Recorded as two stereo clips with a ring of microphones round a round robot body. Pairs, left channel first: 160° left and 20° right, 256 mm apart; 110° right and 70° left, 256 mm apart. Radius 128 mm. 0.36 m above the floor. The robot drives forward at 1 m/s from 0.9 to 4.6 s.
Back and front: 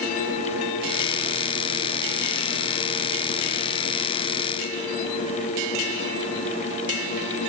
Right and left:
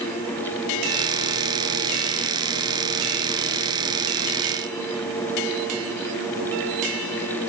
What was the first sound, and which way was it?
Only background noise.